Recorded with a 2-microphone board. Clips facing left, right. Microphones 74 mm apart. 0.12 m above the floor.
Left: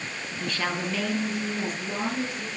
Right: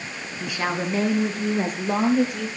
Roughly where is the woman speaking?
Centre.